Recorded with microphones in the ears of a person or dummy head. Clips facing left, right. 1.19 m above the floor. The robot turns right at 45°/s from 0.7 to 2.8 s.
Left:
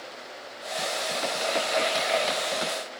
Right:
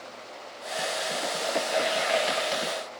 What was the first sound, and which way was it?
Only background noise.